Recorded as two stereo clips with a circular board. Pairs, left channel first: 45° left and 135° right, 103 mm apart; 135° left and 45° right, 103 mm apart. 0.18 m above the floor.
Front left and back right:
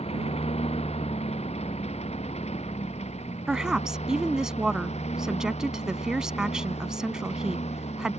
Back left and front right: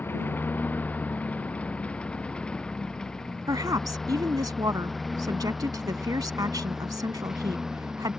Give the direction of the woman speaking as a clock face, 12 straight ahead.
2 o'clock.